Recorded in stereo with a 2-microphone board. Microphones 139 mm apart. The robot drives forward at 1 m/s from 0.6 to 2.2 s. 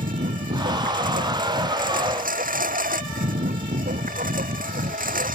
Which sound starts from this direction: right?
A lawn mower, at 0.0 s.